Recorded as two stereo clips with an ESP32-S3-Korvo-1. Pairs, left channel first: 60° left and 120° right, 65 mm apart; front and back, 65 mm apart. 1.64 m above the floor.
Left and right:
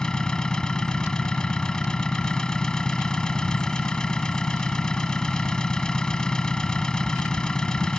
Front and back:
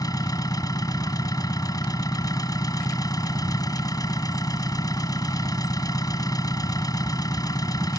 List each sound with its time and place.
0.0 s an engine running: 20° right